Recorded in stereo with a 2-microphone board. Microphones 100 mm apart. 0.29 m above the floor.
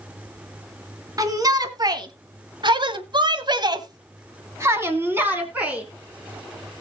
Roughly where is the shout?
Right.